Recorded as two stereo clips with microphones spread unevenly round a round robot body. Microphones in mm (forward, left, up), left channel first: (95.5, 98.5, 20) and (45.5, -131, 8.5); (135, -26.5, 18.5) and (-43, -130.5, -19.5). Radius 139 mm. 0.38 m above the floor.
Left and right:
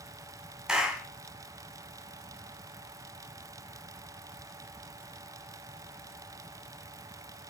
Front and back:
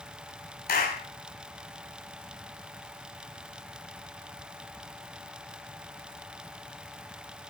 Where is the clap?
15° right, 2.5 m.